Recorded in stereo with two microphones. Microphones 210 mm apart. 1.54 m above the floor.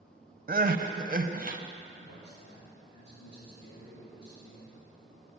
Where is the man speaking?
55° left (ahead or behind), 3.5 m.